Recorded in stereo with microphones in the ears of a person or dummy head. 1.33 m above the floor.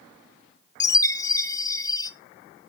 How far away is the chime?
About 0.6 m.